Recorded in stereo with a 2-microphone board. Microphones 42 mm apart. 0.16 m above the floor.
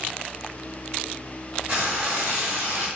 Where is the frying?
35° right (ahead or behind), 1.8 m.